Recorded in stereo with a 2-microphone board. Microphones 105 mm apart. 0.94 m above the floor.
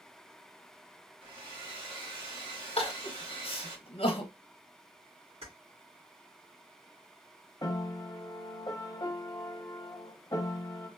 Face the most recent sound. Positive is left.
turn(degrees=35)  # may be behind; listen again after turning